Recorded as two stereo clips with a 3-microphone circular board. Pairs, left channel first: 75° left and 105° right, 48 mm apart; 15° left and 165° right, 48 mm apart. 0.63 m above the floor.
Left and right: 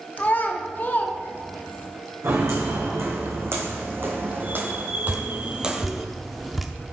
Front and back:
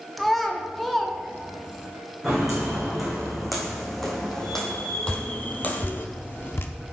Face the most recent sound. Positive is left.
turn(degrees=-20)